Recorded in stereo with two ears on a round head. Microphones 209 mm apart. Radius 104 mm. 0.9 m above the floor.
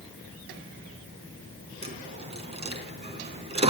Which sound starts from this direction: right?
A dropped coin, at 1.8 s.